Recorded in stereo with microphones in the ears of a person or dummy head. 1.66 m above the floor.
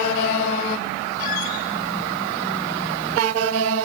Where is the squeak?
45° left (ahead or behind), 6 m.